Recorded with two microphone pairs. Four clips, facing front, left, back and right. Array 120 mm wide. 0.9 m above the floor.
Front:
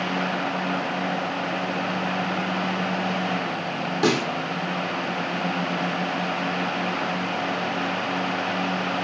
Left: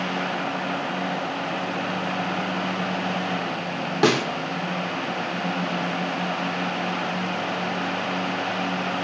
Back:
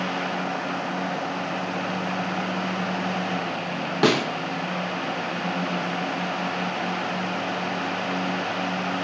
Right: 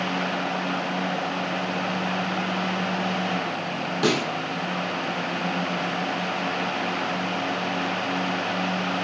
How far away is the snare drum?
About 0.9 m.